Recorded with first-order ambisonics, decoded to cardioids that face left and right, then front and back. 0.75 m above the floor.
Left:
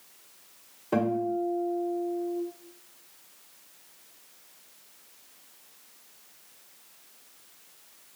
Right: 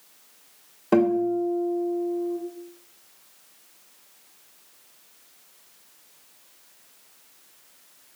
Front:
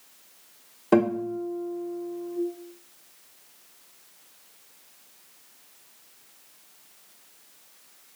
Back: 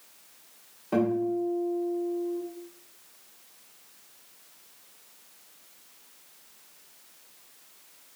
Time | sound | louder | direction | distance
0.9 | a guitar | right 6 dB, front 3 dB | 45° right | 1.0 m